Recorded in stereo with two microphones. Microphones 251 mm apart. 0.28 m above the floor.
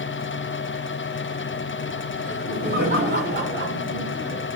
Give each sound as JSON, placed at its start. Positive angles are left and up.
{"t": 2.2, "sound": "laughter", "side_deg": -40, "distance_m": 2.5}